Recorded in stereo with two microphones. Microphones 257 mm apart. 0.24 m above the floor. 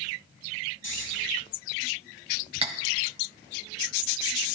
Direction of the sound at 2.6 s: 25° right (ahead or behind).